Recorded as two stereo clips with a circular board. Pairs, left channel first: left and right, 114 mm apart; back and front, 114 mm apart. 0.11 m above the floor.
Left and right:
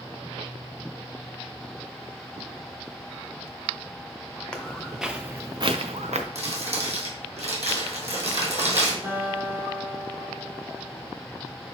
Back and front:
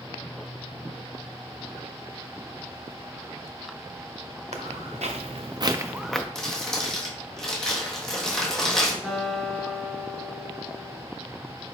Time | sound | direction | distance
4.5 | footsteps | 10° left | 1.1 m
6.3 | crumpling | 95° right | 1.3 m
9.0 | a guitar | 75° right | 1.6 m